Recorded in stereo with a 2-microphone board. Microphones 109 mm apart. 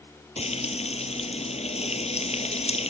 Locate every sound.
0.4 s frying: 75° left (ahead or behind)